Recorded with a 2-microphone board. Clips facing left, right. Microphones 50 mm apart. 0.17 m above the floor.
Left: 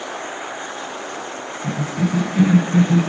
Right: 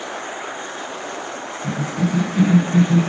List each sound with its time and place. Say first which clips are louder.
1.6 s a cough: even; 20° left (ahead or behind), 1.3 m